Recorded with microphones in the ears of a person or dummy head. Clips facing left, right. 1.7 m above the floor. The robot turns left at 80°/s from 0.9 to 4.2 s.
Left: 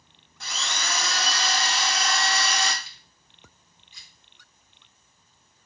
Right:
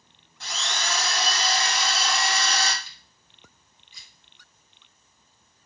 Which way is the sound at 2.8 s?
15° left (ahead or behind).